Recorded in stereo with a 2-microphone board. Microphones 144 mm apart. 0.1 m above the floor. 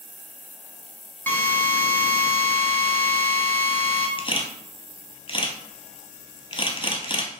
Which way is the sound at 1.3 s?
15° left (ahead or behind).